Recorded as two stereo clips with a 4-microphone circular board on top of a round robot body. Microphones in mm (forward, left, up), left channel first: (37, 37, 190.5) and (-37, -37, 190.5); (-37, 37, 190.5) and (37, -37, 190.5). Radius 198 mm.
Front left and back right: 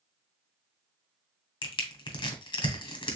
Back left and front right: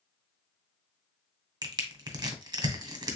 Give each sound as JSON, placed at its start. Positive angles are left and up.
{"t": 1.6, "sound": "crushing", "azimuth_deg": 10, "distance_m": 1.2}